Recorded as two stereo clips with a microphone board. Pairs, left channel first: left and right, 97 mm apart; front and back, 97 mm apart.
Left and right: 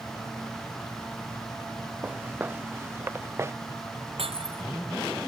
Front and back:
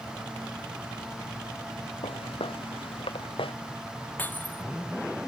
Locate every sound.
2.0 s footsteps: 20° right; by 3.5 s 25° right
4.2 s breaking glass: 70° right